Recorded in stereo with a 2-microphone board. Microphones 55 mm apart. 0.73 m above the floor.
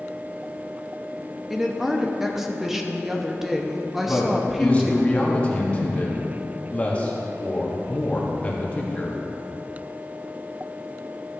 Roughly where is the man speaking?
Left.